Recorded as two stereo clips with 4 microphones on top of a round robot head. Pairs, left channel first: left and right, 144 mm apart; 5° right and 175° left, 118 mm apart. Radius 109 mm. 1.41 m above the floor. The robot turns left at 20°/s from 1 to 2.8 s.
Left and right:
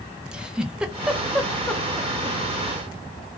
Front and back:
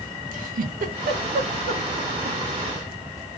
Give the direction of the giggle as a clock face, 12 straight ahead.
6 o'clock.